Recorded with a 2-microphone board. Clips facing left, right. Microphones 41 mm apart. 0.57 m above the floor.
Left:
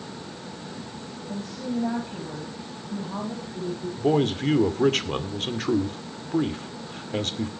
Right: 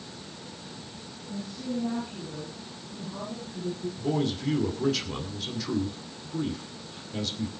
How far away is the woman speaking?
About 4 m.